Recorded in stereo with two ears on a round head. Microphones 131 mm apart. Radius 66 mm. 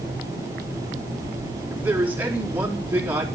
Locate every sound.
1.7 s a man speaking: 10° right (ahead or behind), 4 m